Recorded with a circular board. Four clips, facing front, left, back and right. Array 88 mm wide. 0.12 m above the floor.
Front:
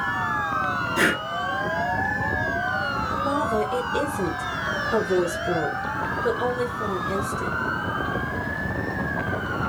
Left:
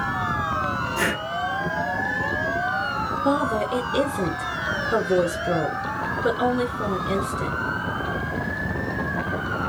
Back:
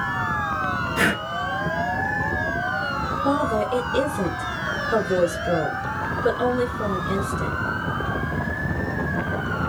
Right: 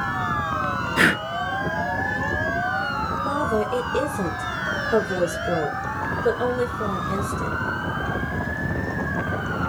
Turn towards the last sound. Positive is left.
turn(degrees=110)